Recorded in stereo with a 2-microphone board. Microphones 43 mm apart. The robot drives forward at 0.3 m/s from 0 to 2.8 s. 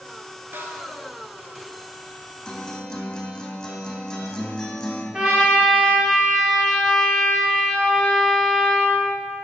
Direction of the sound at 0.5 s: 55° right (ahead or behind).